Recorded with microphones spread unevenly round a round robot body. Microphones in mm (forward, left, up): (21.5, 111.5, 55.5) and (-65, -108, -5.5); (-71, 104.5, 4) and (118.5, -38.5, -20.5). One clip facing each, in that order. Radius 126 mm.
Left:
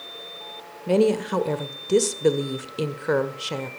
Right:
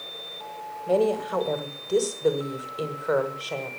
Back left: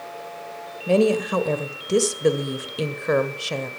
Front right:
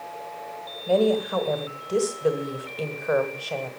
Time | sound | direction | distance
0.9 | a woman speaking | 110° left | 1.3 m